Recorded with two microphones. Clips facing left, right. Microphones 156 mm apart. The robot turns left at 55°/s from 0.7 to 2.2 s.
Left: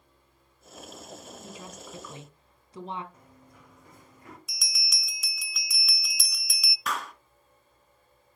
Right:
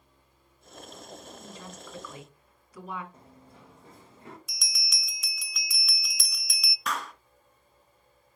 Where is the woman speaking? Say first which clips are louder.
Left 1 dB; 5° left (ahead or behind), 1.7 m; by 3.0 s 25° left (ahead or behind), 1.7 m.